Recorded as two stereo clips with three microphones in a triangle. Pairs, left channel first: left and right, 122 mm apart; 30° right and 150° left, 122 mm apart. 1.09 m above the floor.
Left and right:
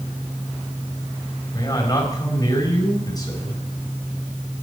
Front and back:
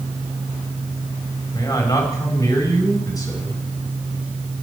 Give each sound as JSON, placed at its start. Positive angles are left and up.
{"t": 1.5, "sound": "a man speaking", "azimuth_deg": 30, "distance_m": 5.0}